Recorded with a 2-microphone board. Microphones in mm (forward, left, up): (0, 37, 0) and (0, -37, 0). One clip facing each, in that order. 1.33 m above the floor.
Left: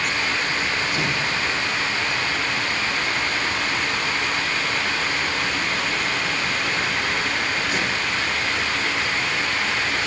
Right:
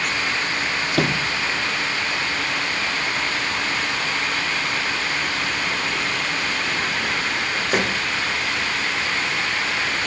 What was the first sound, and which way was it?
A sliding door, 65° right (ahead or behind).